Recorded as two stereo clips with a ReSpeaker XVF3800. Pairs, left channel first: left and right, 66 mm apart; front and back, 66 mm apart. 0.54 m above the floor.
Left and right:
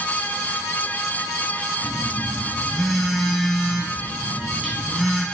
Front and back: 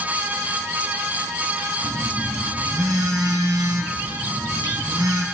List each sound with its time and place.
1.8 s a phone buzzing: straight behind, 3.5 m